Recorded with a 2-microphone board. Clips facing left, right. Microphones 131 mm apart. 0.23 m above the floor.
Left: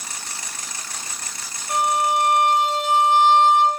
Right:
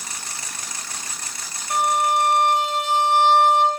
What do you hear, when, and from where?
1.7 s a violin: 65° left (ahead or behind), 2.5 m